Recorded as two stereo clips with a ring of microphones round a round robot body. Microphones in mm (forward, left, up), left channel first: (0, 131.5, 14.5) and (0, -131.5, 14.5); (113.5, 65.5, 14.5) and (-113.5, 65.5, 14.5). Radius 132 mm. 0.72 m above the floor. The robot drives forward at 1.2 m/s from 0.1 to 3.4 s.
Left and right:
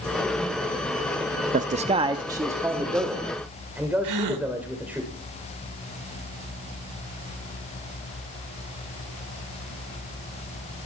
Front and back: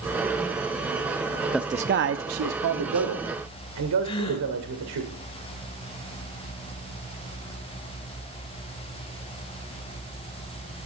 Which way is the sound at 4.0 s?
70° right.